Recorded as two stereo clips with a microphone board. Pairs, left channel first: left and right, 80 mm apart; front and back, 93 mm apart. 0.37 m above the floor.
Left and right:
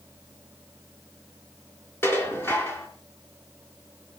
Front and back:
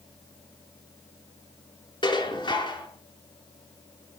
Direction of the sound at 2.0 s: 30° left.